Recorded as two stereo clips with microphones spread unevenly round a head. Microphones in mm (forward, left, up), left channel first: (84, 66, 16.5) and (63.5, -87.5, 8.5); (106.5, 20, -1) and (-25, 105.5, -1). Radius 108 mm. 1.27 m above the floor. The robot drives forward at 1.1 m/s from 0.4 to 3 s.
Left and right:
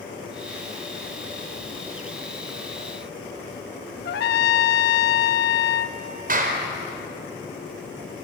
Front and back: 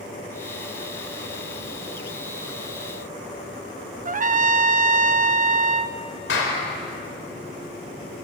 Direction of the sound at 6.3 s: 70° right.